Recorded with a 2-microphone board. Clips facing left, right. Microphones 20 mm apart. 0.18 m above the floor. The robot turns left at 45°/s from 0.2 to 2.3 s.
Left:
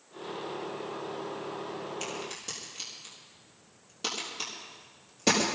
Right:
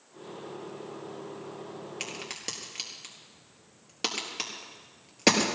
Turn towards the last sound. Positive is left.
turn(degrees=-45)  # may be behind; listen again after turning